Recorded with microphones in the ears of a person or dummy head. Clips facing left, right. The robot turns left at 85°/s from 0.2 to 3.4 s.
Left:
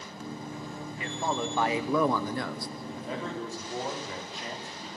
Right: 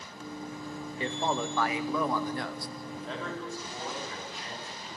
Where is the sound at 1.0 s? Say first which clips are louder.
Right 1 dB; 150° right, 0.9 m; by 2.7 s 60° left, 0.9 m.